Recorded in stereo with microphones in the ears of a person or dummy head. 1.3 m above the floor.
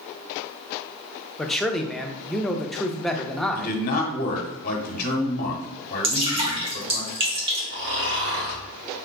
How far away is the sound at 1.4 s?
About 0.6 m.